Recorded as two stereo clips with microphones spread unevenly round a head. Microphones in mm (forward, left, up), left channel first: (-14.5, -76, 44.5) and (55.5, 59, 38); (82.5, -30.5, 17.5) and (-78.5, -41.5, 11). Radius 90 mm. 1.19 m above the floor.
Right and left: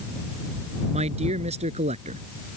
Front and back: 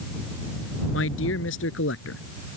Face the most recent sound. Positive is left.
turn(degrees=15)